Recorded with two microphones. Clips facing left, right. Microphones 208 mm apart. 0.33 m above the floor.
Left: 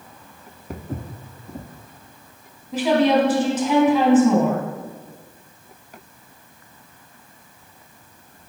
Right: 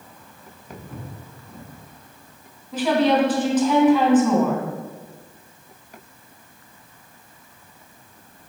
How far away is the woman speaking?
About 2.5 m.